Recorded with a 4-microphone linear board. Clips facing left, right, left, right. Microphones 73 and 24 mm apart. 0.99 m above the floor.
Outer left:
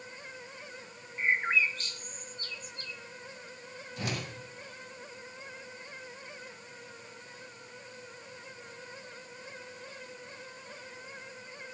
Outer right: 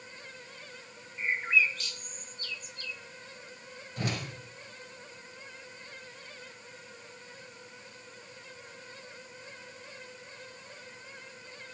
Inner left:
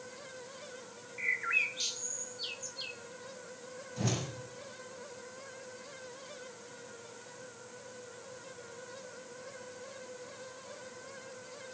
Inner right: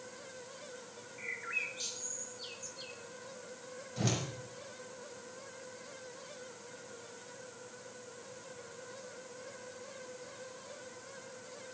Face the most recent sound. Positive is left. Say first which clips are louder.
# outer right 2 dB, even
turn(degrees=-45)  # may be behind; listen again after turning